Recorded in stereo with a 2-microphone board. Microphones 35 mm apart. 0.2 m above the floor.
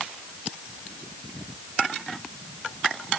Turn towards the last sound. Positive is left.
No sound to turn to.